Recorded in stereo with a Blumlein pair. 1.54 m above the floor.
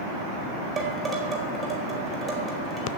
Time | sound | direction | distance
0.8 | dishes clattering | 20° right | 4.5 m